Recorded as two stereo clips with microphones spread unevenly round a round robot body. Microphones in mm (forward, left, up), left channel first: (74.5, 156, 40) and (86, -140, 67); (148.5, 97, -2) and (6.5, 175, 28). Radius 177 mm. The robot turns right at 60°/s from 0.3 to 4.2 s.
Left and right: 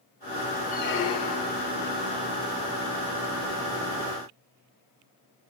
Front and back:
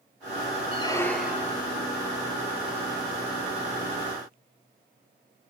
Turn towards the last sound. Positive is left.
turn(degrees=-125)